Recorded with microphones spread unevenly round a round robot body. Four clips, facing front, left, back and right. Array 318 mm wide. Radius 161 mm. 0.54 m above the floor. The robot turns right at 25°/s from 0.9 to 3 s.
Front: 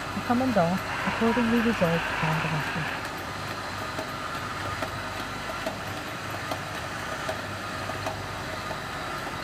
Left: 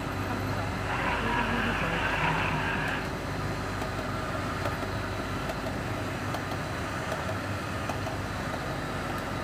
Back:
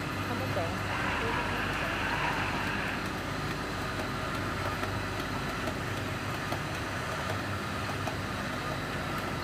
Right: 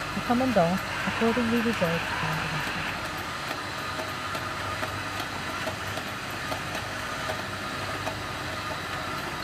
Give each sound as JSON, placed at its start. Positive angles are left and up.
{"t": 0.2, "sound": "a woman speaking", "azimuth_deg": -40}